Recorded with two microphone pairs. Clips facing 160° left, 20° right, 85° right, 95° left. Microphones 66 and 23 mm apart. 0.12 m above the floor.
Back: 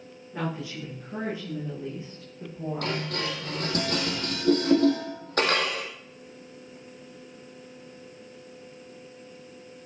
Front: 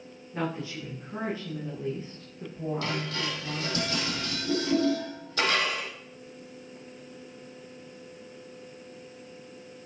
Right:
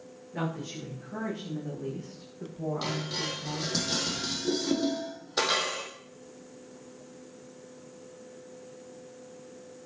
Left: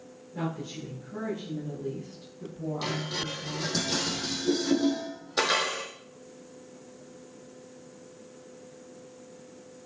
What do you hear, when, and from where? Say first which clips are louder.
0.3 s a woman speaking: even, even; 130° right, 8 m; by 3.8 s 120° right, 7 m
2.8 s dishes clattering: back 1 dB, left 3 dB; 170° right, 3 m